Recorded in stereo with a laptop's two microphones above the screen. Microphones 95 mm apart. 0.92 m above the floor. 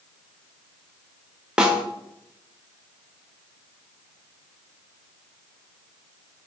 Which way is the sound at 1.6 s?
10° right (ahead or behind).